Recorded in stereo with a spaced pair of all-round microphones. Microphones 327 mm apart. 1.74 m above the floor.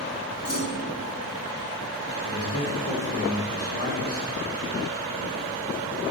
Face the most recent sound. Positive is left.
turn(degrees=80)